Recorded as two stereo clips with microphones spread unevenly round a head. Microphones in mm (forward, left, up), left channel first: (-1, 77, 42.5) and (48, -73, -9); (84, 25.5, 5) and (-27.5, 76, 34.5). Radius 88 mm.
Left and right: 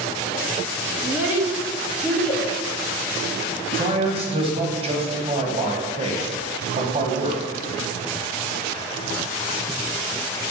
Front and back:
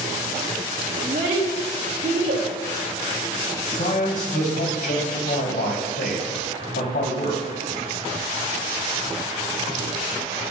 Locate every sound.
1.0 s a child speaking: 155° right, 0.9 m; by 2.5 s 175° right, 1.5 m
3.7 s a man speaking: 30° right, 1.3 m